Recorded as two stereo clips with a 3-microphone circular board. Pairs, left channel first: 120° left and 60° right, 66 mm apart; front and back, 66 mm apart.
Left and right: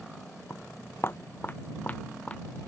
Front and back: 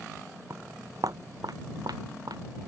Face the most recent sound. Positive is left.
turn(degrees=-170)